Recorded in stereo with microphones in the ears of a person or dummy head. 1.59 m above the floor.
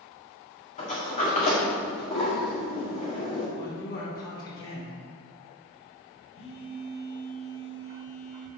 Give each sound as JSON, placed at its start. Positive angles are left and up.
{"t": 0.8, "sound": "a sliding door", "side_deg": 35, "distance_m": 2.0}
{"t": 3.6, "sound": "a man speaking", "side_deg": 65, "distance_m": 3.0}
{"t": 6.3, "sound": "a phone buzzing", "side_deg": 65, "distance_m": 1.7}